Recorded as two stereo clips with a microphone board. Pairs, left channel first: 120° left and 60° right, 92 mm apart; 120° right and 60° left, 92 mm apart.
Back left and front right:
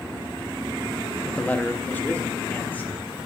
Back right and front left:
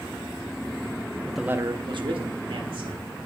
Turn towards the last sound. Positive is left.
turn(degrees=50)